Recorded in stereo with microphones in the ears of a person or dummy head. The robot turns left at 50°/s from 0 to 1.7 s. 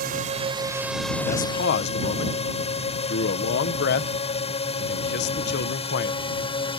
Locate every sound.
0.0 s a drone: 50° right (ahead or behind); by 6.8 s 30° left (ahead or behind)
1.2 s a man speaking: 35° left (ahead or behind); by 6.4 s 60° left (ahead or behind)